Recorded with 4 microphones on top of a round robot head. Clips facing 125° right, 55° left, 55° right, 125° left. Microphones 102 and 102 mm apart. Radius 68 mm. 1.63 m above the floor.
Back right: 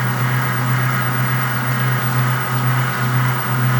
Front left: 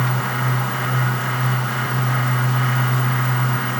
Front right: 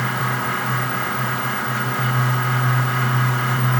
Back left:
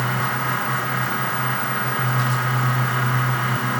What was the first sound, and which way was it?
Only background noise.